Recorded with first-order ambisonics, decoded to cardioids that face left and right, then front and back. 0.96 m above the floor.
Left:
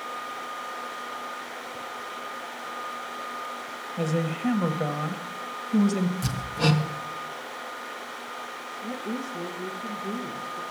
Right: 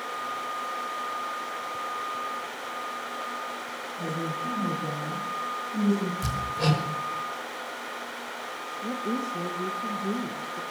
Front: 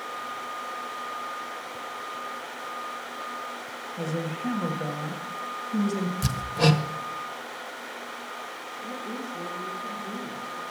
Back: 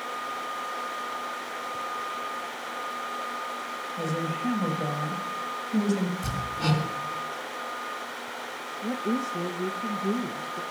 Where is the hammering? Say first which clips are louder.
Left 1 dB, front 4 dB; 5° left, 1.5 m.